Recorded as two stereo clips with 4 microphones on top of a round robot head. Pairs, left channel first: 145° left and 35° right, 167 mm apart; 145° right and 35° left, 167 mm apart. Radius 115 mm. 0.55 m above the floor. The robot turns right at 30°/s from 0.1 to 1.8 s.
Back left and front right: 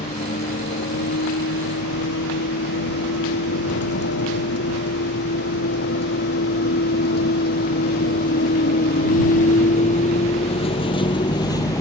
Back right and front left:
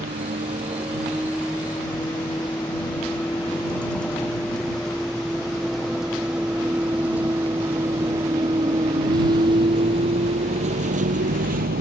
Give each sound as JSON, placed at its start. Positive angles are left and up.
{"t": 0.0, "sound": "a vehicle", "azimuth_deg": 90}